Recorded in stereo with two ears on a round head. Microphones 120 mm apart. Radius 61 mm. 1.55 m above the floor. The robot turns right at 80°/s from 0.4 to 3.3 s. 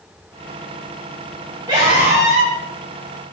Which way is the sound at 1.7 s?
145° right.